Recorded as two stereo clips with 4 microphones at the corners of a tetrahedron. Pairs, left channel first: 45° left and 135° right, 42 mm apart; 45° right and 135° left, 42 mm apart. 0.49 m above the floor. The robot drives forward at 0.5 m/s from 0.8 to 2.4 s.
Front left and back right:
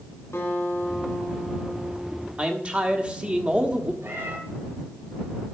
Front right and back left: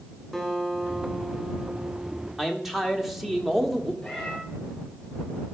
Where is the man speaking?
140° right, 1.1 m; by 3.9 s 145° right, 1.1 m.